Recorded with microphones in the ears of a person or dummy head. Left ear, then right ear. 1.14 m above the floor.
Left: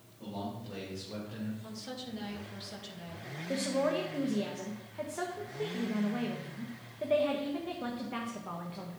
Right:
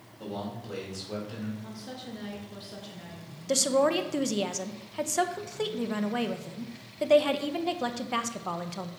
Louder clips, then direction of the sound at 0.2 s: Right 4 dB; 80° right.